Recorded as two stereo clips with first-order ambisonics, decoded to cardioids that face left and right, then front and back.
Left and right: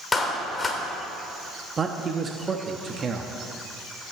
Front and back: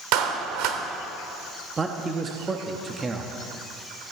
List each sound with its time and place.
0.1 s a clap: 165° left, 1.4 m
1.8 s a man speaking: 135° right, 0.7 m